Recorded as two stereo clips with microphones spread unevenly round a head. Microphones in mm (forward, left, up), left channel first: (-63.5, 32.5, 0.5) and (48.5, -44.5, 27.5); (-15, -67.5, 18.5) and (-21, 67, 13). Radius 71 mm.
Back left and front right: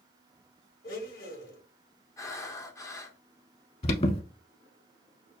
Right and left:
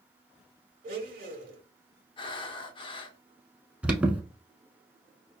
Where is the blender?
115° left, 1.1 m.